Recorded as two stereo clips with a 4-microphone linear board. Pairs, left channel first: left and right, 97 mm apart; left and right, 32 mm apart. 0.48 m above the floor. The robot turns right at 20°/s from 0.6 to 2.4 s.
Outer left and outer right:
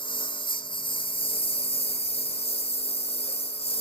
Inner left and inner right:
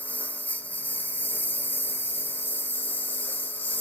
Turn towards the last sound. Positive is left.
turn(degrees=90)